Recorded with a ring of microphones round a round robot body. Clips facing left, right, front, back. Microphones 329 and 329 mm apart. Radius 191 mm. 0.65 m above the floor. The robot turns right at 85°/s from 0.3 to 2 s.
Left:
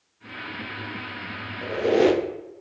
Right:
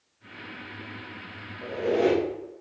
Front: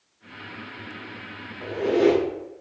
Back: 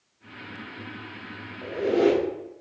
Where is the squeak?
60° left, 0.7 m; by 2.2 s 95° left, 0.7 m.